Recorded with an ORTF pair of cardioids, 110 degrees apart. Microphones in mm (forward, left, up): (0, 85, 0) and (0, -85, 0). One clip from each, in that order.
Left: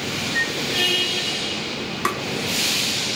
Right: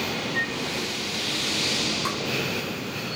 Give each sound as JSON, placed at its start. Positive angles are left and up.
{"t": 0.3, "sound": "a flute", "azimuth_deg": 40, "distance_m": 1.1}
{"t": 2.0, "sound": "tapping", "azimuth_deg": 55, "distance_m": 1.1}